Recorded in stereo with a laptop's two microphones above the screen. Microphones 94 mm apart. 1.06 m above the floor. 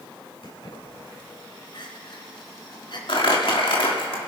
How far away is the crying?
About 2.5 m.